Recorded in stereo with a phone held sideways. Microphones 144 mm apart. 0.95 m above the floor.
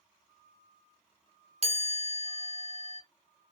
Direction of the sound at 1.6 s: 50° right (ahead or behind).